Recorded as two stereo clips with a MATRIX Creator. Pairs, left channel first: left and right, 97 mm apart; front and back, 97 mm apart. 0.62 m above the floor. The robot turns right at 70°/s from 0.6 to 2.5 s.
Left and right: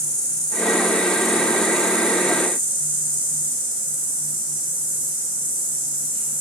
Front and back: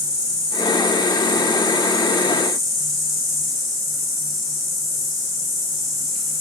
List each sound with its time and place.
0.0 s an insect: 135° left, 0.8 m; by 6.4 s 90° right, 0.8 m